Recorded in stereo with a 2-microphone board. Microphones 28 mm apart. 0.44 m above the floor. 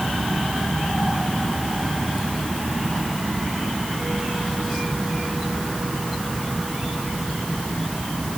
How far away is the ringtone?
No ringtone in this recording.